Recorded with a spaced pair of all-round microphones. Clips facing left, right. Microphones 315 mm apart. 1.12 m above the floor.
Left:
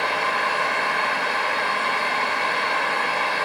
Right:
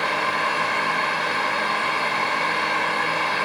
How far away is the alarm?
No alarm in this recording.